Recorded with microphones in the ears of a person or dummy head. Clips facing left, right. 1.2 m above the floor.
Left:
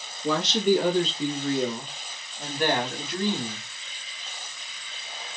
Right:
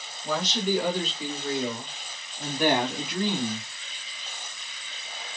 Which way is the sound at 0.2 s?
55° left (ahead or behind).